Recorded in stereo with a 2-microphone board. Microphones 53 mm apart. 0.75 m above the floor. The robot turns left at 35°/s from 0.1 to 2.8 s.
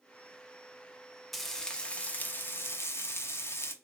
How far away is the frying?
About 0.6 m.